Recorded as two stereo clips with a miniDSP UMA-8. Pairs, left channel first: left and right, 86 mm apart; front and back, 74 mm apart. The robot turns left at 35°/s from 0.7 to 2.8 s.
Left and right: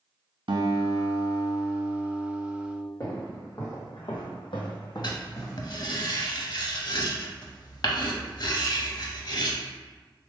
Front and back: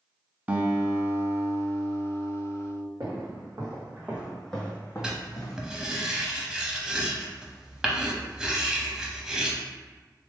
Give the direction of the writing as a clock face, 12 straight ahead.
9 o'clock.